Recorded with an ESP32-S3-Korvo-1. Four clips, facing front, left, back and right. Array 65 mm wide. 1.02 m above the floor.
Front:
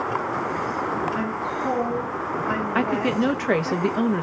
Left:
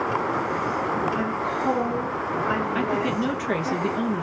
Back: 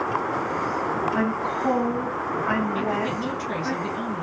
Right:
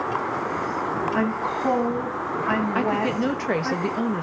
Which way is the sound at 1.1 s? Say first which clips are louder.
Right 1 dB, back 2 dB; 110° right.